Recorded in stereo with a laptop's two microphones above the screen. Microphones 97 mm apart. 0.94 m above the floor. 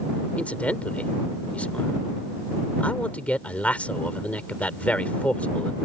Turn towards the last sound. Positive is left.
turn(degrees=15)  # may be behind; listen again after turning